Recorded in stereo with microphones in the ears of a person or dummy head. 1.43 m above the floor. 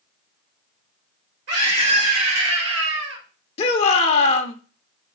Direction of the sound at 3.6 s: 35° left (ahead or behind).